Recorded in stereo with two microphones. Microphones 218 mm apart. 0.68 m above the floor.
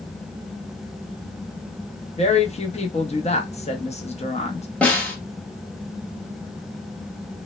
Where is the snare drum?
5° left (ahead or behind), 0.8 m.